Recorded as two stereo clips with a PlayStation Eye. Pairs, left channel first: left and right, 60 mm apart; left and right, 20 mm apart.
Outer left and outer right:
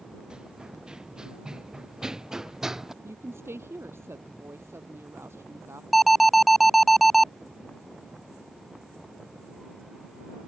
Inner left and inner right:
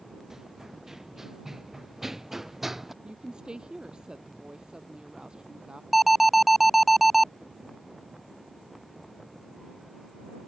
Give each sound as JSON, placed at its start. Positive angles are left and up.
{"t": 0.3, "sound": "running footsteps", "side_deg": -15}
{"t": 3.0, "sound": "a woman speaking", "side_deg": -45}
{"t": 5.9, "sound": "an alarm", "side_deg": 0}